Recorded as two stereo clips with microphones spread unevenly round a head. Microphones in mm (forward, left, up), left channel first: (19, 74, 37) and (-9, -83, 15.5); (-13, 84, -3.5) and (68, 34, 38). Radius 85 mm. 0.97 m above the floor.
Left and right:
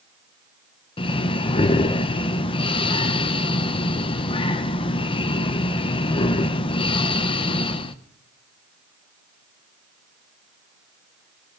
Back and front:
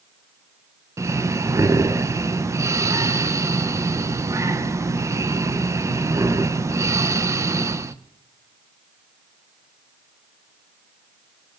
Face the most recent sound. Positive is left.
turn(degrees=45)